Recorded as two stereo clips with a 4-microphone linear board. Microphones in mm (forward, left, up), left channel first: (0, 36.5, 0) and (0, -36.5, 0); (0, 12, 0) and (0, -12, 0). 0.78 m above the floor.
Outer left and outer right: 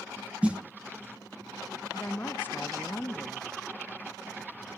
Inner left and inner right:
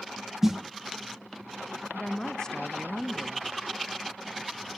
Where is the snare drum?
15° right (ahead or behind), 0.8 m.